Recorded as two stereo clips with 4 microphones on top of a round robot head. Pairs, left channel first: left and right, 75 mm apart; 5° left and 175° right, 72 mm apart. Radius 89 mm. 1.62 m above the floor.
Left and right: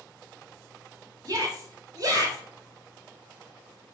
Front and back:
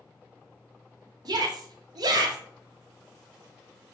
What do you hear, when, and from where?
1.2 s a shout: 140° right, 1.1 m